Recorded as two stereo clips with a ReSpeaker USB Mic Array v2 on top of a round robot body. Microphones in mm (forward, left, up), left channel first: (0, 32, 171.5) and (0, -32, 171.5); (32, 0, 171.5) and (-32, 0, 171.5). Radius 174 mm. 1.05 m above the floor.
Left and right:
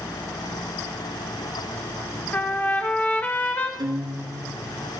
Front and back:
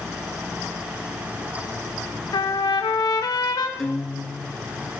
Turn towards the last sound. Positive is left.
turn(degrees=-85)